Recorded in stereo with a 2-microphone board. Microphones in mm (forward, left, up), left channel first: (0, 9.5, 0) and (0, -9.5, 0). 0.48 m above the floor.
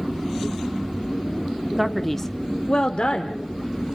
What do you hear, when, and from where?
1.8 s a man speaking: 10° right (ahead or behind), 0.9 m; by 4.0 s 55° left (ahead or behind), 1.8 m